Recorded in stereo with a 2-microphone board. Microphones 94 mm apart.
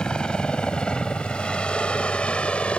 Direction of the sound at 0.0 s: 10° left (ahead or behind).